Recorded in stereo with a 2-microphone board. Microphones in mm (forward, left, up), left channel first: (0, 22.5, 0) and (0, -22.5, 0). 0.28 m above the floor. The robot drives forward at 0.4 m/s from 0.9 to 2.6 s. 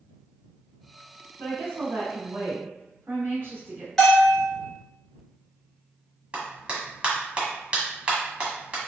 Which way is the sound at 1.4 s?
55° right (ahead or behind).